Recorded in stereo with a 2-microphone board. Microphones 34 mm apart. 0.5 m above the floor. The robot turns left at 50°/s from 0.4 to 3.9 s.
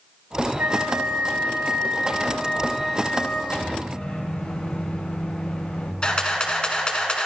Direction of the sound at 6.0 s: 30° left (ahead or behind).